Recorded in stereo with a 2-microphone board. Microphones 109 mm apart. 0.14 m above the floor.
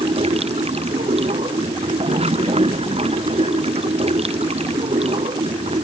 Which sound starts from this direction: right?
Running water, at 0.0 s.